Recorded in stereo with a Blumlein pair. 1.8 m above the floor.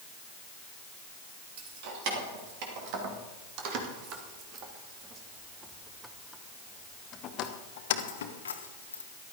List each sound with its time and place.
1.6 s keys jangling: 50° right, 3 m; by 9.0 s 80° left, 1.5 m